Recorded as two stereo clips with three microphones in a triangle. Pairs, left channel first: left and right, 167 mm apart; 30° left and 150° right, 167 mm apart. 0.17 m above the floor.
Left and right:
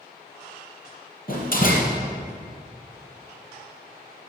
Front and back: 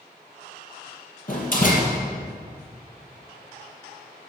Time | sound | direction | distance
1.3 | a door slam | 60° left | 3 m